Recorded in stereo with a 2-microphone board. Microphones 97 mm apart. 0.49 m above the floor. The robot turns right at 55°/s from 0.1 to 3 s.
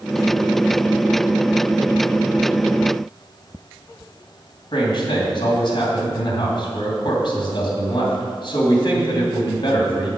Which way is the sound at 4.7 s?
55° left (ahead or behind).